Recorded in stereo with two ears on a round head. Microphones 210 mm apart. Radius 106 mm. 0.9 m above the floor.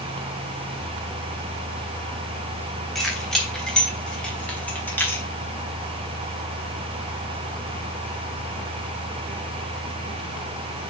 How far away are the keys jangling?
About 4 m.